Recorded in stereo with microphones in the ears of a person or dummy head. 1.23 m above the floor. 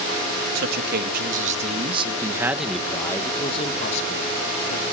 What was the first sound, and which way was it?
A man speaking, 60° right (ahead or behind).